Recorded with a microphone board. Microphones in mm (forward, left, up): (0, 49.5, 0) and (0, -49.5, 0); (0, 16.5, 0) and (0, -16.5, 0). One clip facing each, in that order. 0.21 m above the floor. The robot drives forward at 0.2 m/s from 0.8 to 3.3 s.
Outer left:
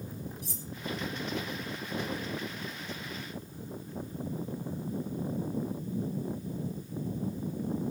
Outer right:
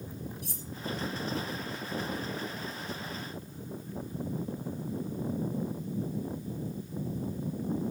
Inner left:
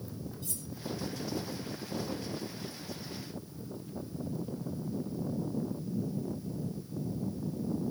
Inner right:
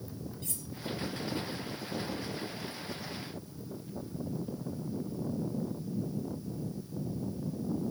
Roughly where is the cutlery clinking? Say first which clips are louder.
Even, even; right.